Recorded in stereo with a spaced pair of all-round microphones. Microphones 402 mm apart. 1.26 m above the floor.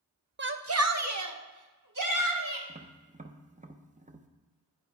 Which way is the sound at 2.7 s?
20° right (ahead or behind).